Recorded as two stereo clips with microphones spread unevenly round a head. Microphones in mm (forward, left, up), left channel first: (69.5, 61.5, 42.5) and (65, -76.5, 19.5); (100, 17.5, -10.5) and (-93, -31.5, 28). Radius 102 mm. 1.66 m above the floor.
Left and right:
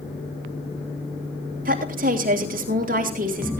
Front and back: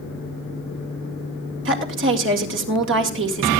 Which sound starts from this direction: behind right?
A woman speaking, at 1.6 s.